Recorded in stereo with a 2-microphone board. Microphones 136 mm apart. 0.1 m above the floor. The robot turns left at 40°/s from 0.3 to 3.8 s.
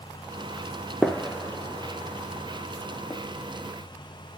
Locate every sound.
1.0 s a gunshot: centre (ahead or behind), 0.6 m; by 3.2 s 30° left (ahead or behind), 0.6 m